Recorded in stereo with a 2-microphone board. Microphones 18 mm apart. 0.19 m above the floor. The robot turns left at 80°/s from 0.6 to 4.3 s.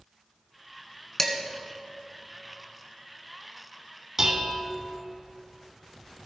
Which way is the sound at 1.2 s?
25° left (ahead or behind).